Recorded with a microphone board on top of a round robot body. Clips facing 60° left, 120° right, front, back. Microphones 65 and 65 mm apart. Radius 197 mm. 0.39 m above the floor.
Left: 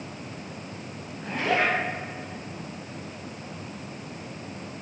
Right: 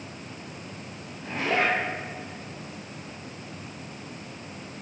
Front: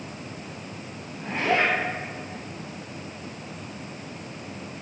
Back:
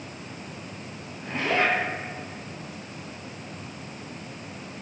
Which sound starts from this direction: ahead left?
A zipper, at 1.2 s.